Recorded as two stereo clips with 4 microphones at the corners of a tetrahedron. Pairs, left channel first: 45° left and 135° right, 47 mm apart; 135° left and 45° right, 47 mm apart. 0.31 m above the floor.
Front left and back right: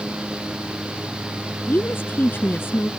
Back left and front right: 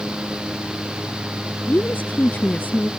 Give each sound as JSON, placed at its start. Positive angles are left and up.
{"t": 1.7, "sound": "a woman speaking", "azimuth_deg": 85}